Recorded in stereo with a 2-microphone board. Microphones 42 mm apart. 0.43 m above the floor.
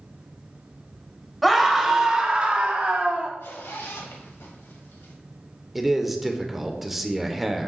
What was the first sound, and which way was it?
A scream, centre (ahead or behind).